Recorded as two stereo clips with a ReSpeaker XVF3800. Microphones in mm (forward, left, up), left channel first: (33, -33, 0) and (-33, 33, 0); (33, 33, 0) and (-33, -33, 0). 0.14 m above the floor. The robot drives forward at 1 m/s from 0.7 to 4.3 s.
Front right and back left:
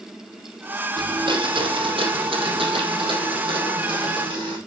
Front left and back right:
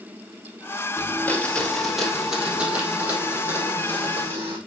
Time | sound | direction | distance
1.0 | a blender | 105° left | 1.5 m